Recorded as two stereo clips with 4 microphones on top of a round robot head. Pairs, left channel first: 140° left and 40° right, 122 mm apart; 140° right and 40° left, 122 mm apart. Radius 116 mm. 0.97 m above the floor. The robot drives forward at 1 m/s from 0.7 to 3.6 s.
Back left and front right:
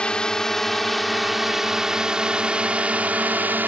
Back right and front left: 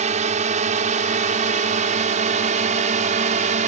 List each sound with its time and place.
0.0 s a drone: 60° left; by 3.7 s 35° left